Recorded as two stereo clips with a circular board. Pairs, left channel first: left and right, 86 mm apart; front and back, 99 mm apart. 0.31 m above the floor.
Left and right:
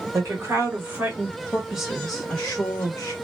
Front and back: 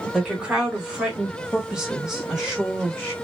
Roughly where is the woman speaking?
Right.